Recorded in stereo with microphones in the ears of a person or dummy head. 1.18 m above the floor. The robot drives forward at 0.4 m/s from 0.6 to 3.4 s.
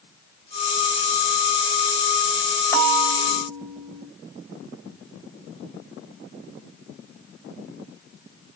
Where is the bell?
15° left (ahead or behind), 3.5 m.